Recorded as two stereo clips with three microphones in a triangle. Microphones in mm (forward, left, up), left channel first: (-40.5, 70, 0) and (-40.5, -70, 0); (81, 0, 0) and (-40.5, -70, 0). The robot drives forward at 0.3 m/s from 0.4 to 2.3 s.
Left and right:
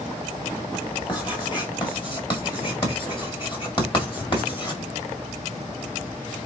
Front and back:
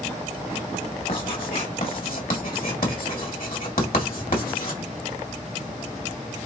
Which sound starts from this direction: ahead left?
Writing, at 1.1 s.